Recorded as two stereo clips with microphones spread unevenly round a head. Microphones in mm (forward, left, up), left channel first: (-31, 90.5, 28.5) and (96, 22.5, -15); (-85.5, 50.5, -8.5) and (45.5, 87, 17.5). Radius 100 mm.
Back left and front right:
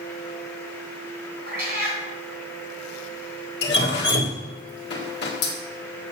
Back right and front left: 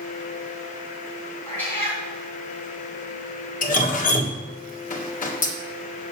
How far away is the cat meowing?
About 3 m.